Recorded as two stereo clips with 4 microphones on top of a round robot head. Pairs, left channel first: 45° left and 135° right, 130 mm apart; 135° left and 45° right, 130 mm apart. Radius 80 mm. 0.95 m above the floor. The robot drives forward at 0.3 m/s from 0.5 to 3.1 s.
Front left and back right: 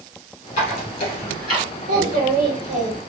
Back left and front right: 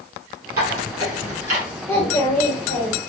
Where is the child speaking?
155° right, 1.4 m; by 3.0 s 160° right, 1.7 m.